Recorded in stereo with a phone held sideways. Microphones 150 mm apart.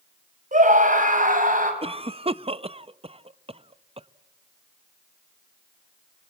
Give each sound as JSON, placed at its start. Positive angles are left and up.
{"t": 0.5, "sound": "a scream", "side_deg": -60, "distance_m": 5.5}
{"t": 1.8, "sound": "a cough", "side_deg": -40, "distance_m": 0.6}